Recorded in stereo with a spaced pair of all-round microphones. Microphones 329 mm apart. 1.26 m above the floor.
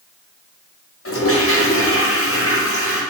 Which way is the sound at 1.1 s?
45° left (ahead or behind).